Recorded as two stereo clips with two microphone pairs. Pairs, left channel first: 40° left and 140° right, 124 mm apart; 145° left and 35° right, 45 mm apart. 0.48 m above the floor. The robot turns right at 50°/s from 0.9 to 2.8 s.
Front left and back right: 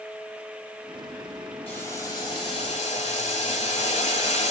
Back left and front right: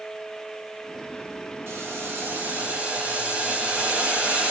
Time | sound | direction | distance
1.7 | boiling | 35° right | 1.7 m